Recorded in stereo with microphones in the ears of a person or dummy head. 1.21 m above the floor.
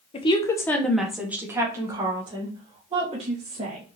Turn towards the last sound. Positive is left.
turn(degrees=-35)  # may be behind; listen again after turning